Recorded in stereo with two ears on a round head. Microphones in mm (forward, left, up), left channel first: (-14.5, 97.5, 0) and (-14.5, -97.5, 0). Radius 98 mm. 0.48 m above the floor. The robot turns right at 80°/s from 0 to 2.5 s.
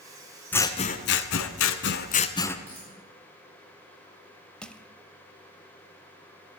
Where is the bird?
No bird in this recording.